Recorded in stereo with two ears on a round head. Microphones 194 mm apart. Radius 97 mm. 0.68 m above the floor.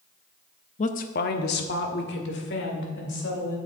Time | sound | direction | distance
0.8 | a woman speaking | 35° left (ahead or behind) | 0.6 m